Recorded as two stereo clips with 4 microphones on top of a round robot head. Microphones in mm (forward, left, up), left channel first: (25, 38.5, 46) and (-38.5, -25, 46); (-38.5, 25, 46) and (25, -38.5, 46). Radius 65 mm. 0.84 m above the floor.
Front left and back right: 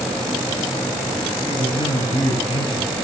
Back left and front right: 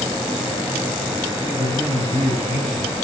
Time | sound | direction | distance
1.5 | a man speaking | 10° left | 9 m